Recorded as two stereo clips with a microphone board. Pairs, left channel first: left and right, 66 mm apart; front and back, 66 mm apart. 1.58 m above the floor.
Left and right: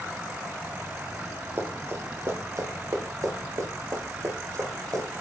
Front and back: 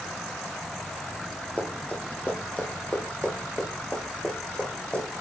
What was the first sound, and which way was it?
Running footsteps, 55° right.